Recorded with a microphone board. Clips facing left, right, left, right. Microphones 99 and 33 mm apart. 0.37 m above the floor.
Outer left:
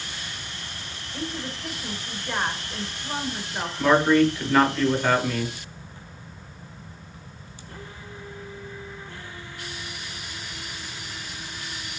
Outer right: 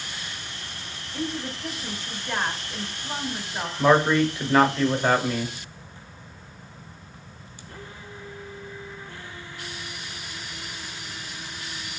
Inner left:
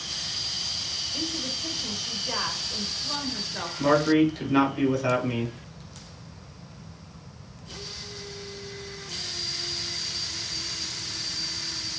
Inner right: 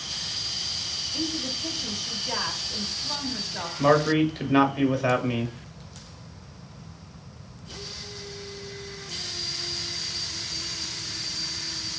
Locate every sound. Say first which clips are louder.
1.1 s a woman speaking: outer right 2 dB, inner right 3 dB; 5° left (ahead or behind), 1.0 m
3.8 s a man speaking: outer left 1 dB, even; 20° right (ahead or behind), 1.1 m